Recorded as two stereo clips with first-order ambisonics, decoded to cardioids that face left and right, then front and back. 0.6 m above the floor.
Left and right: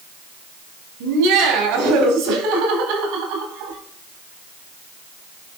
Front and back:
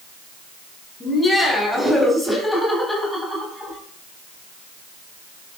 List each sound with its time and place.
1.0 s laughter: 85° right, 3 m; by 3.8 s 95° right, 4.5 m